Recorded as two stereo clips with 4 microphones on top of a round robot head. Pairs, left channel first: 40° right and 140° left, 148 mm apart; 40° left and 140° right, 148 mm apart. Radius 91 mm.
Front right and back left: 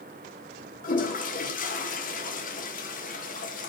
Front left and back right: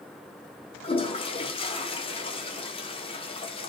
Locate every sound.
0.8 s a toilet flushing: 15° right, 1.3 m